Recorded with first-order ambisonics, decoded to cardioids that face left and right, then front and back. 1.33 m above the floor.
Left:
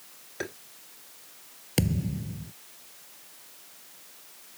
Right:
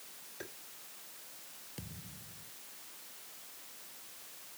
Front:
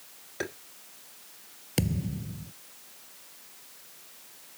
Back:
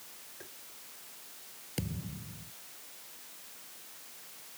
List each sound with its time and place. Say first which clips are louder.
0.4 s tapping: left 12 dB, front 19 dB; 35° left
1.8 s a thud: left 23 dB, front 9 dB; 60° left